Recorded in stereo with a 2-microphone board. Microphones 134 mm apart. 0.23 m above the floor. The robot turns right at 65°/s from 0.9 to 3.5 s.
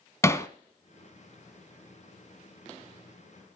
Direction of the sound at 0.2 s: 20° left (ahead or behind).